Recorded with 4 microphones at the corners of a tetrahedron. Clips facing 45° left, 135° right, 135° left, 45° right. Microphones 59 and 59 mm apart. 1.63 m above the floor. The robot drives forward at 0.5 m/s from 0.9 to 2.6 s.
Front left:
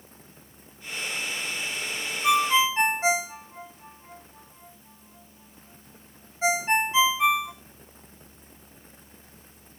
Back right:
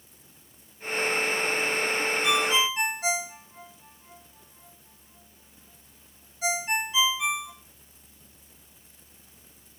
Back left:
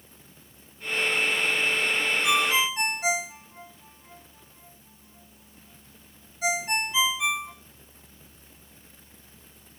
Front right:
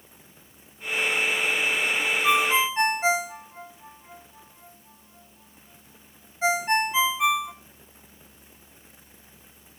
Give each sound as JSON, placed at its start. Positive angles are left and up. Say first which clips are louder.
{"t": 2.2, "sound": "a ringtone", "louder": "front left 6 dB, front right 4 dB", "azimuth_deg": 0, "distance_m": 1.3}